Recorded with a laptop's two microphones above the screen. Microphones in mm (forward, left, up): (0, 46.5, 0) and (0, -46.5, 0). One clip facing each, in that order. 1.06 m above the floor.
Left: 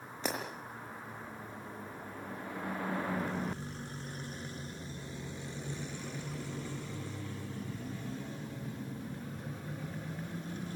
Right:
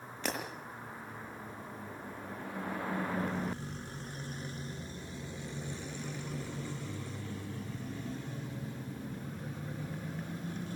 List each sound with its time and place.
0.2 s breaking glass: 15° left (ahead or behind), 7.5 m